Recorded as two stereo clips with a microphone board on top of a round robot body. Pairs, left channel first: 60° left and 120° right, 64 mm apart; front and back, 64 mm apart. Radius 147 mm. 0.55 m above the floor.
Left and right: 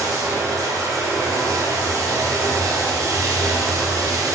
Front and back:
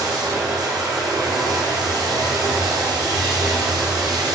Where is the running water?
155° right, 1.3 m.